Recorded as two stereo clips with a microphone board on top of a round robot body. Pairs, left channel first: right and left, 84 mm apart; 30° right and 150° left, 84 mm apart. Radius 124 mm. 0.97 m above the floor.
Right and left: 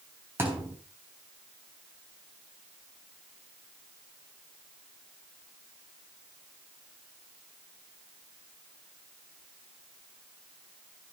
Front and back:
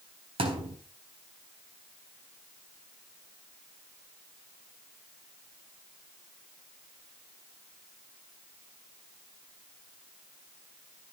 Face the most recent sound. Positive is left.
turn(degrees=150)